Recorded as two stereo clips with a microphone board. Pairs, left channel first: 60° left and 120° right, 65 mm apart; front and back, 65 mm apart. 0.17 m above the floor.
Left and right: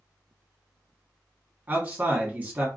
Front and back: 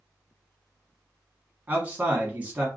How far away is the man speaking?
About 1.4 m.